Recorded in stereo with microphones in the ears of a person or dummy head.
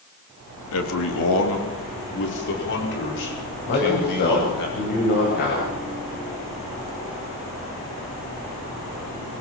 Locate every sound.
0.7 s a man speaking: 80° left, 3.5 m; by 4.7 s 55° left (ahead or behind), 8 m
3.7 s a man speaking: 55° left (ahead or behind), 9 m